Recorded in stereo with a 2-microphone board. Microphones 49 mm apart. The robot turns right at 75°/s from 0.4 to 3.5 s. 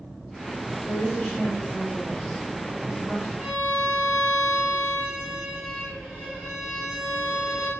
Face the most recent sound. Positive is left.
turn(degrees=-10)  # may be behind; listen again after turning